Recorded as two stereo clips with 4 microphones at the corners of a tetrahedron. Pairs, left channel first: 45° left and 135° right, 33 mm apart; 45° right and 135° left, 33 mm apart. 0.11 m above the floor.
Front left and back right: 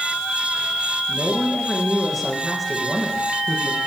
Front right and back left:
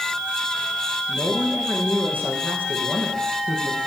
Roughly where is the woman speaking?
Behind left.